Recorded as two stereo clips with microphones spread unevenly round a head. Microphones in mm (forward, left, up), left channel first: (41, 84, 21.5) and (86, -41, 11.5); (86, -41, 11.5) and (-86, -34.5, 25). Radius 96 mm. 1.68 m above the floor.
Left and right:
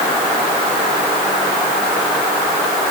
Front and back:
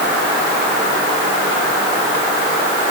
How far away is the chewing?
I don't hear chewing.